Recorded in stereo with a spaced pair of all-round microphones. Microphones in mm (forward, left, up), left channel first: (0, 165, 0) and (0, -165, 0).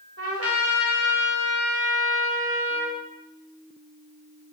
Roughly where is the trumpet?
Right.